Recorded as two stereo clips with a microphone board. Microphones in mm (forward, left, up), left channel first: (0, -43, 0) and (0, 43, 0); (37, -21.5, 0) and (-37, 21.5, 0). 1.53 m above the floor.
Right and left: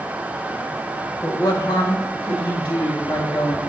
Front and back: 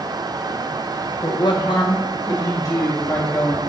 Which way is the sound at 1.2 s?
40° right.